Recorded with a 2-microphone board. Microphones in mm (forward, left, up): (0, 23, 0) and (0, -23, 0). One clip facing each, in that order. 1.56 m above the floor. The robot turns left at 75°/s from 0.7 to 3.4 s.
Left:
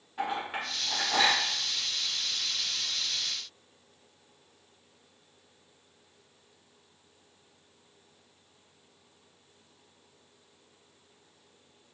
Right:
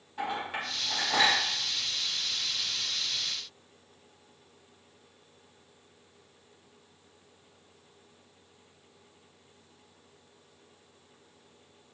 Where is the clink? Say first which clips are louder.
Left 1 dB; 5° left (ahead or behind), 1.8 m; by 1.4 s 40° right (ahead or behind), 1.8 m.